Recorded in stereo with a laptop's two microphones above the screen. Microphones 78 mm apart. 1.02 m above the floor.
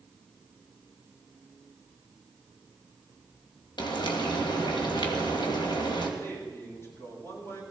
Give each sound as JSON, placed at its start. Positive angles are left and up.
{"t": 3.8, "sound": "frying", "side_deg": 75, "distance_m": 2.5}
{"t": 6.2, "sound": "a man speaking", "side_deg": 35, "distance_m": 9.0}